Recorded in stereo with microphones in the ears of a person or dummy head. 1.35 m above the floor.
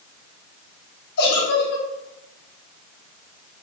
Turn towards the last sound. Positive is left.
turn(degrees=60)  # may be behind; listen again after turning